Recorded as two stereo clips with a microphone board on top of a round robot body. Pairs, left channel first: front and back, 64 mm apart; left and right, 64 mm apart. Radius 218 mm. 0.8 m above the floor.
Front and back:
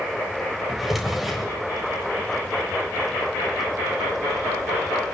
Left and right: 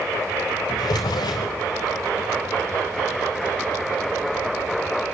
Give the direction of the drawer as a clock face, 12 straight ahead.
9 o'clock.